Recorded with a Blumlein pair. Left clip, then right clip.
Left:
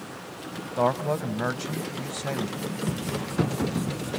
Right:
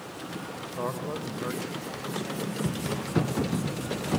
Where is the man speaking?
65° left, 1.2 m.